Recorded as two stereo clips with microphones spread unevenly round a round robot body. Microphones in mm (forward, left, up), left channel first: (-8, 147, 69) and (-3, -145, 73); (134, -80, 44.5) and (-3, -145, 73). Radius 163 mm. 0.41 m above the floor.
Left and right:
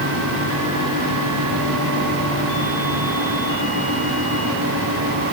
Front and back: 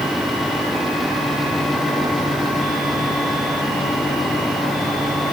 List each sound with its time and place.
Only background noise.